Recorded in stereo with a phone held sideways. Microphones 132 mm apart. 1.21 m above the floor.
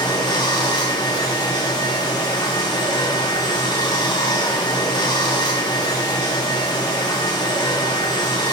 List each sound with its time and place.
0.0 s running water: 30° left (ahead or behind), 0.7 m